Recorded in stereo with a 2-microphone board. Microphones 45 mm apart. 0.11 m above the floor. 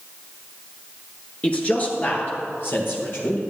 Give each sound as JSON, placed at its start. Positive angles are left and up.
{"t": 1.4, "sound": "a man speaking", "side_deg": 30, "distance_m": 1.5}